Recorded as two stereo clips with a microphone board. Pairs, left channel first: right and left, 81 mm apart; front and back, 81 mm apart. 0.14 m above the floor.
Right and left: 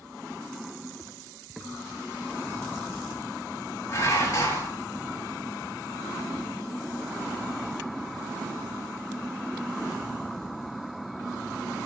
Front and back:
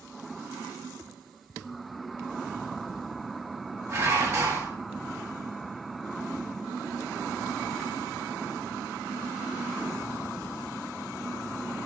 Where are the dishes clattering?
140° right, 7 m.